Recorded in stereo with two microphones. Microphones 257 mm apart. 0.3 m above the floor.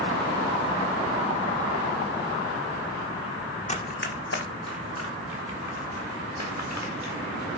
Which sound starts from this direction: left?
Running footsteps, at 3.7 s.